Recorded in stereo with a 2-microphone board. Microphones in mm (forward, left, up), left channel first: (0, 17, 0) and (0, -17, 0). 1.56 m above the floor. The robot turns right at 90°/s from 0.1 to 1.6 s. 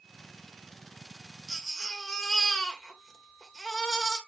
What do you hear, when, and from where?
1.5 s a baby crying: 5° left (ahead or behind), 2 m; by 4.2 s 15° left (ahead or behind), 2 m